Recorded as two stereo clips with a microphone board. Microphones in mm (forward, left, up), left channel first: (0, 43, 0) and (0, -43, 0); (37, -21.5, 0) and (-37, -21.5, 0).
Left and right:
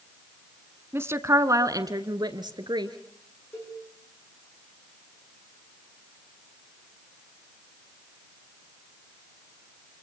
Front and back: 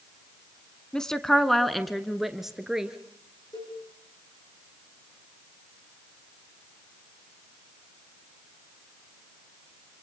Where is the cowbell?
30° left, 9.5 m.